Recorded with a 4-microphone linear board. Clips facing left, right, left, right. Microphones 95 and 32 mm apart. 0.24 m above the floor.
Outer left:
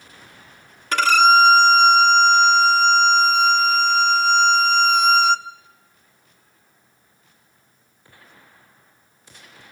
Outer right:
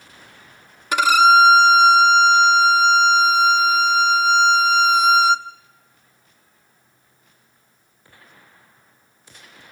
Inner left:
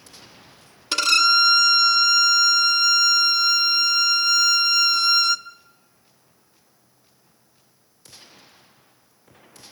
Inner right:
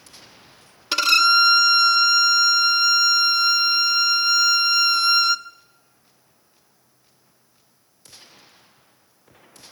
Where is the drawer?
No drawer in this recording.